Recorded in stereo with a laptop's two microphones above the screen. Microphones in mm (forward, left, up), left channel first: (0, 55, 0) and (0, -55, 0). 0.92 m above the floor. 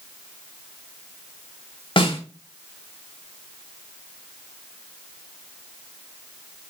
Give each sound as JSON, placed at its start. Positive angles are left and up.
{"t": 2.0, "sound": "a snare drum", "side_deg": 50, "distance_m": 2.0}